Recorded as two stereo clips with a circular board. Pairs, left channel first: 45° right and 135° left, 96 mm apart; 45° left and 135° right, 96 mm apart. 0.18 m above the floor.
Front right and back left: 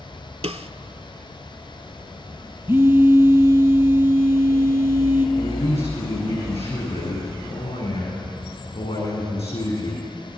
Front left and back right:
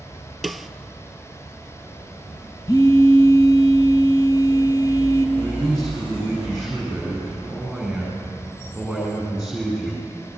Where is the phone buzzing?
75° left, 1.3 m.